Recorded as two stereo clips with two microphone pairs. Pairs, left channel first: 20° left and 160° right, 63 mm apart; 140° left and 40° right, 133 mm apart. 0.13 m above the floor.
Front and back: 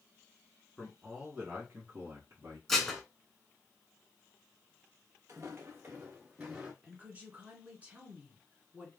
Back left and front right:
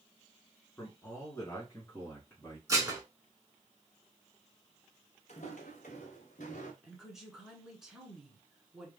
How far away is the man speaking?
About 1.1 m.